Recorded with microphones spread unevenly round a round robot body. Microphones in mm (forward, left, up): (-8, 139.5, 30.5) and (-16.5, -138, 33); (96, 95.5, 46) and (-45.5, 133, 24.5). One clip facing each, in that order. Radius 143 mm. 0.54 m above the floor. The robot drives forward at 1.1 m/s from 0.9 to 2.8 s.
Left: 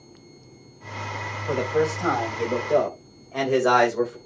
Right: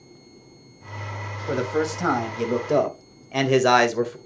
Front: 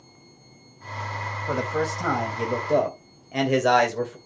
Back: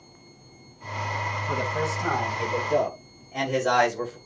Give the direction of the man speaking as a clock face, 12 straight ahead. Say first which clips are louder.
Left 1 dB, front 3 dB; 1 o'clock.